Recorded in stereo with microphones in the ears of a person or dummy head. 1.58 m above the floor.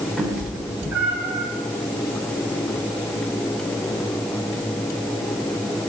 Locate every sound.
0.2 s a cat meowing: centre (ahead or behind), 3 m; by 1.5 s 15° right (ahead or behind), 3.5 m